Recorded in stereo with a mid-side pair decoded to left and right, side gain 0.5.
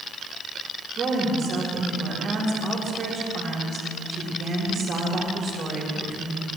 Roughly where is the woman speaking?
Ahead right.